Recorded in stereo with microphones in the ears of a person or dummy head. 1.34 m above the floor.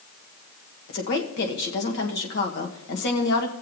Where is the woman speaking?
60° left (ahead or behind), 1.2 m.